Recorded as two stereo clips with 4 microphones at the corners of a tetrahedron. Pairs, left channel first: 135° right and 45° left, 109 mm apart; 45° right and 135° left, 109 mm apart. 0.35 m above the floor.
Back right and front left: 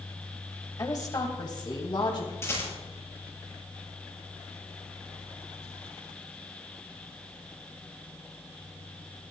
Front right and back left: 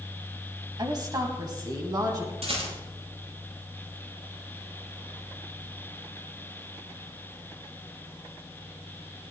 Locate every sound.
0.8 s a woman speaking: 175° left, 1.8 m; by 2.3 s 175° right, 3 m
2.4 s a rattle: 160° left, 6.5 m